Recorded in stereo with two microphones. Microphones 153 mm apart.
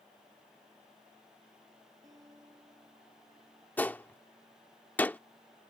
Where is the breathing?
No breathing in this recording.